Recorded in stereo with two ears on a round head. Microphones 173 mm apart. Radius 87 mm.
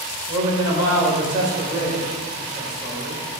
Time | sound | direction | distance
0.3 | a man speaking | 25° right (ahead or behind) | 2.5 m